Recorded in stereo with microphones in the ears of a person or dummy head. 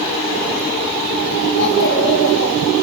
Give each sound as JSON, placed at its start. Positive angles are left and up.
{"t": 1.6, "sound": "a child speaking", "side_deg": 60, "distance_m": 9.0}